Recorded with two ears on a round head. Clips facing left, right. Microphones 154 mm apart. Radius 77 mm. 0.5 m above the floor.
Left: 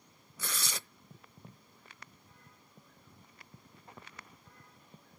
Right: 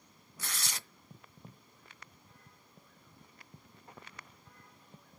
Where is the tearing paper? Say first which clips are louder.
Left 3 dB; 70° left (ahead or behind), 0.5 m.